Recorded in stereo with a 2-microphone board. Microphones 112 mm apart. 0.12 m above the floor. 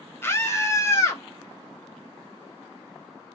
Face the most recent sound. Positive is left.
turn(degrees=25)  # may be behind; listen again after turning